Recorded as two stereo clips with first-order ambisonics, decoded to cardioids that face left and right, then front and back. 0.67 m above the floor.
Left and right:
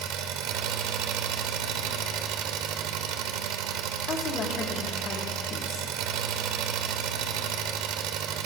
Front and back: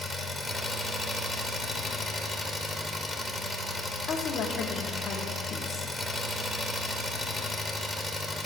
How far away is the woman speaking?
About 1.2 m.